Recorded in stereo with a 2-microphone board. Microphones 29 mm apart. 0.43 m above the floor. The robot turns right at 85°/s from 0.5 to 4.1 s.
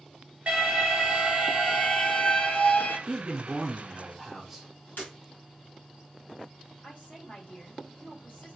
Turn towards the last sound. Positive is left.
turn(degrees=45)  # may be behind; listen again after turning